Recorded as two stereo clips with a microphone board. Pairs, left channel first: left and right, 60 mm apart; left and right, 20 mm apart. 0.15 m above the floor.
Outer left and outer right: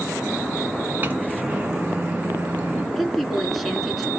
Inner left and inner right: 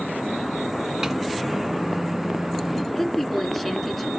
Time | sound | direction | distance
1.0 | a microwave | 35° right (ahead or behind) | 1.4 m
3.0 | a woman speaking | centre (ahead or behind) | 1.5 m